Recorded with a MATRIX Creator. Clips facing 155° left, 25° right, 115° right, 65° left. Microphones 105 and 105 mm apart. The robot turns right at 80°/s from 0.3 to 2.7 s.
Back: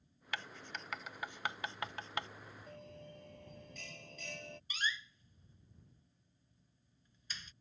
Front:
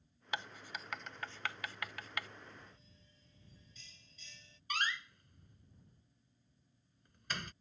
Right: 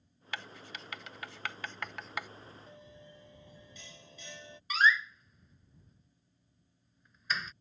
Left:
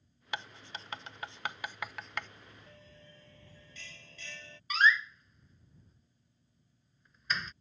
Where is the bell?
175° left.